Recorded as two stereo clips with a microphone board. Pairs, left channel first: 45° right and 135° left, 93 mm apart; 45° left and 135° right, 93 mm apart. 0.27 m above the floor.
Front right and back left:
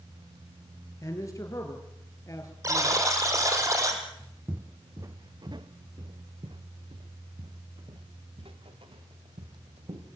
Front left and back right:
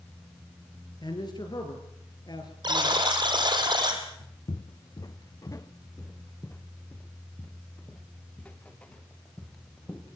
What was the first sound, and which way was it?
A man speaking, 10° left.